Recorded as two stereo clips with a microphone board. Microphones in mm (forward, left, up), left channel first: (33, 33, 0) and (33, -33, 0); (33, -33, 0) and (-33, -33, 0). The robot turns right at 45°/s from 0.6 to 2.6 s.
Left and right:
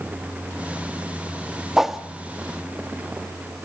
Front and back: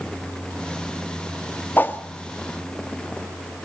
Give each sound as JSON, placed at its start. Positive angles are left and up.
{"t": 1.8, "sound": "a whoosh", "azimuth_deg": -15, "distance_m": 1.2}